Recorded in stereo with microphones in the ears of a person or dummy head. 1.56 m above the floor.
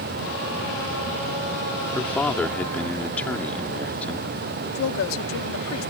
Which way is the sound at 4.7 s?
80° left.